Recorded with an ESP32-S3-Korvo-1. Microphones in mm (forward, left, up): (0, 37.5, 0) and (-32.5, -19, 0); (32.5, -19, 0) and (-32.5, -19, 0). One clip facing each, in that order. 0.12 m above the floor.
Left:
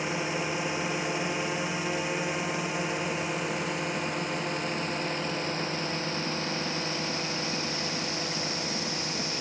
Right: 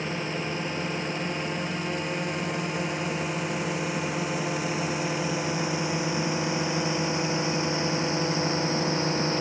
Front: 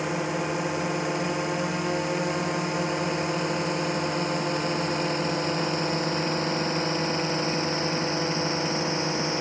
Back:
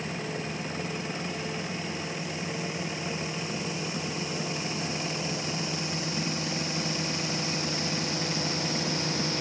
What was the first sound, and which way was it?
A drone, 20° right.